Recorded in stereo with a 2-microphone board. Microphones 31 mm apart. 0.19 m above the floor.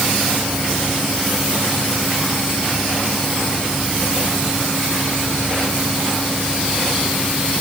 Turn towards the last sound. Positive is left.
No sound to turn to.